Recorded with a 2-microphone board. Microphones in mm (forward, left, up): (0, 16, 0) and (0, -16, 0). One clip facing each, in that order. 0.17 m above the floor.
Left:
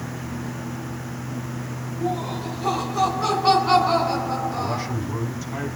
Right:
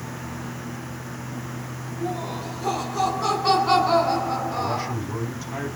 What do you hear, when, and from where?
2.0 s laughter: 15° left (ahead or behind), 4 m; by 5.0 s 20° right (ahead or behind), 1.8 m
4.5 s a man speaking: 10° right (ahead or behind), 5 m